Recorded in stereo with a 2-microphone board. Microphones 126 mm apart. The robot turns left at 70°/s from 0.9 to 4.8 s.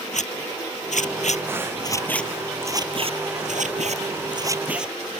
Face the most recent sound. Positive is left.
turn(degrees=-5)  # may be behind; listen again after turning